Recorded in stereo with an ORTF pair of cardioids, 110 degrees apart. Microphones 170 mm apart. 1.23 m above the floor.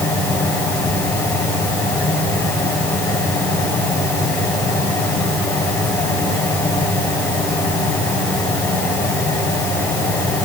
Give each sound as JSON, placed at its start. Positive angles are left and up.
{"t": 0.0, "sound": "a fan", "azimuth_deg": 10, "distance_m": 6.5}